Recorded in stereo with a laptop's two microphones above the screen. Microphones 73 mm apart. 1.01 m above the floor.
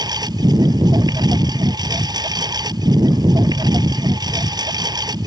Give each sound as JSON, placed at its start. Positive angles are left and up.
{"t": 0.0, "sound": "a lawn mower", "side_deg": -70}